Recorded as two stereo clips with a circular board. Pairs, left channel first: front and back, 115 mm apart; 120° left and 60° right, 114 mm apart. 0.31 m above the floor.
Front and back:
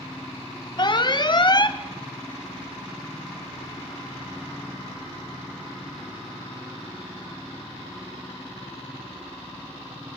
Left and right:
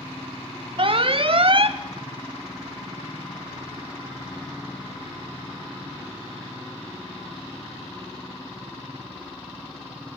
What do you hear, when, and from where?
0.8 s an alarm: 40° right, 0.9 m